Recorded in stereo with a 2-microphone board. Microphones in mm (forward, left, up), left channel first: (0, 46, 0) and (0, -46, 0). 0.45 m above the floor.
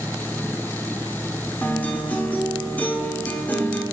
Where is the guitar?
20° left (ahead or behind), 1.3 m.